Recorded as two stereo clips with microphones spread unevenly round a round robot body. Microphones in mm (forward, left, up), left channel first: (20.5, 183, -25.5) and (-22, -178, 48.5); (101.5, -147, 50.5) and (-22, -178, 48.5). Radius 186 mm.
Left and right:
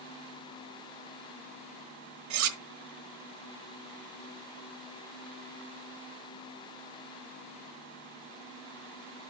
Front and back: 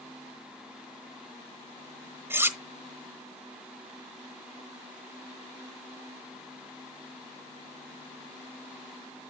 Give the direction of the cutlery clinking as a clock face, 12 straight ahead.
3 o'clock.